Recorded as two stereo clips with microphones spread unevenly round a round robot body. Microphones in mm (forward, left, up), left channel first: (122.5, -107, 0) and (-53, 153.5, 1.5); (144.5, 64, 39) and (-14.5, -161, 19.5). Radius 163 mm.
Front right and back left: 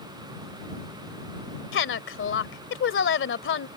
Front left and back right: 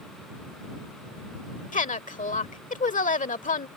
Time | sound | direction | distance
1.7 | a woman speaking | 5° right | ?